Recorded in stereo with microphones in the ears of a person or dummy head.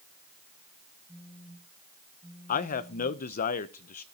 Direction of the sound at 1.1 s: Centre (ahead or behind).